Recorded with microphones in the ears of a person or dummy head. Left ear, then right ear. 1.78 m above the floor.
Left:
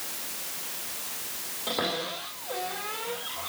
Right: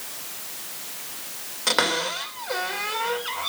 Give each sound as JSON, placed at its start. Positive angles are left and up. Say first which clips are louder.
{"t": 1.7, "sound": "a cupboard door", "louder": "right 8 dB", "side_deg": -50, "distance_m": 2.0}